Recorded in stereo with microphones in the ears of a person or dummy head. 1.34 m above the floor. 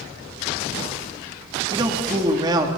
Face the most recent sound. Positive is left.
turn(degrees=-25)  # may be behind; listen again after turning